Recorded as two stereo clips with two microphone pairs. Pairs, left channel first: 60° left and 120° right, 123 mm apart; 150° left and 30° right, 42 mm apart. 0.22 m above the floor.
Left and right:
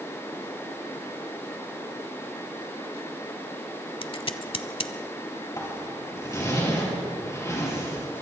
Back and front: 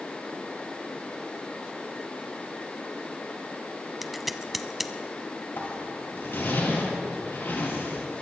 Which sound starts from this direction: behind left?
A zipper, at 5.6 s.